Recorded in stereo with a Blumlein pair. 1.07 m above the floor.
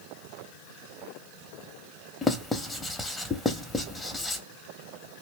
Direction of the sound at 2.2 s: 10° left.